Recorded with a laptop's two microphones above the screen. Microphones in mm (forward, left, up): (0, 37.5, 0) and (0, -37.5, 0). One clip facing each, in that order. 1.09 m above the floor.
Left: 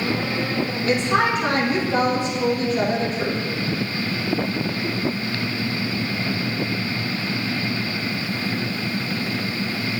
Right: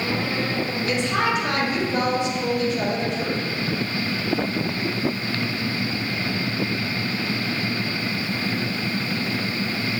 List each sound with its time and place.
0.9 s a woman speaking: 40° left (ahead or behind), 1.5 m